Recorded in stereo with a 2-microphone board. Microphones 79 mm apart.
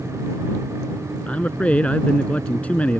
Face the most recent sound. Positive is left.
turn(degrees=20)  # may be behind; listen again after turning